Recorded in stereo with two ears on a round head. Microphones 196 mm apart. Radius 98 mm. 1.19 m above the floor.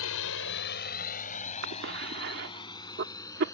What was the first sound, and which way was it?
A drone, 75° left (ahead or behind).